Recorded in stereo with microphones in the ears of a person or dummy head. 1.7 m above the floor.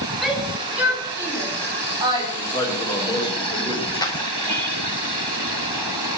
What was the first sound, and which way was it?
A shout, centre (ahead or behind).